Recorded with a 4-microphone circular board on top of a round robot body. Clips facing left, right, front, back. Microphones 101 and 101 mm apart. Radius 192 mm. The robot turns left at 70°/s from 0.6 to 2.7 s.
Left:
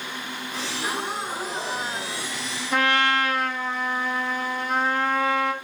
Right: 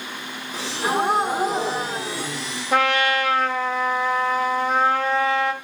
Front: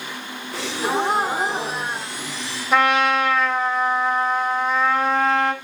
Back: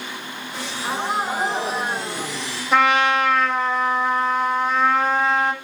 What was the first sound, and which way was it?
A gasp, 10° right.